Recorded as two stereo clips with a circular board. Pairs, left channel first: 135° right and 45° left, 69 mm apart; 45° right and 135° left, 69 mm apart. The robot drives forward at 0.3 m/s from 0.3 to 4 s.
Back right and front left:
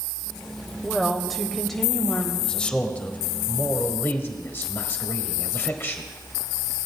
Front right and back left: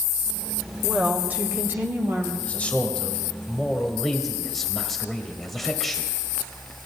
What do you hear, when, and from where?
0.8 s a woman speaking: 115° left, 0.9 m; by 2.3 s 155° left, 1.0 m
2.4 s a man speaking: 75° right, 1.0 m; by 6.0 s 130° right, 1.0 m